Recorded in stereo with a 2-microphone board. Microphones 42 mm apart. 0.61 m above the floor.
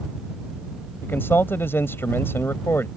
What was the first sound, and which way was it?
A man speaking, 65° left (ahead or behind).